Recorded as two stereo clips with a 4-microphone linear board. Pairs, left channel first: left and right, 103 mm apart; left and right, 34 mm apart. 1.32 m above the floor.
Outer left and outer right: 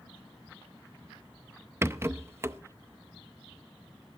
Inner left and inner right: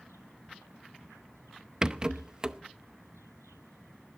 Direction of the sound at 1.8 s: 25° right (ahead or behind).